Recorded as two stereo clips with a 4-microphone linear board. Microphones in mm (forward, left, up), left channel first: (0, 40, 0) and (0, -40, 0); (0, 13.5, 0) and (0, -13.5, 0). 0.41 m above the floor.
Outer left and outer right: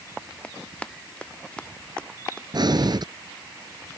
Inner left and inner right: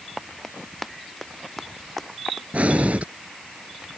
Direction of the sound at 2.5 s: 55° right (ahead or behind).